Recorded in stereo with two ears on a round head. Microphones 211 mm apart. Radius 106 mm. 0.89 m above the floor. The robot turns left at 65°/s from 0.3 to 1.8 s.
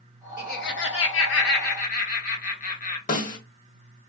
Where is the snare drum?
35° left (ahead or behind), 1.1 m.